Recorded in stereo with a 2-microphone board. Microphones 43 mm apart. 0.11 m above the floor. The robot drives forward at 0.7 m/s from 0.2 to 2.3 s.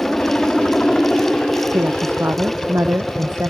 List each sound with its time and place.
0.0 s a helicopter: 15° left (ahead or behind)
1.7 s a woman speaking: 65° right (ahead or behind)